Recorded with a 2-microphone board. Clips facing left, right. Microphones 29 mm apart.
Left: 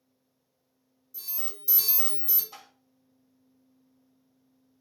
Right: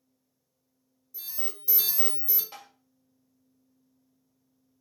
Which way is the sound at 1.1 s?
Centre (ahead or behind).